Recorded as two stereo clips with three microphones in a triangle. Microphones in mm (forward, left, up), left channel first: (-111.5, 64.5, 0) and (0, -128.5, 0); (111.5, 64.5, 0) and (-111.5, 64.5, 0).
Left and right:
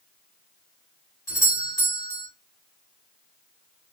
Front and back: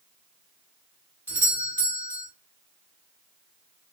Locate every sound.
1.3 s a doorbell: 175° left, 1.5 m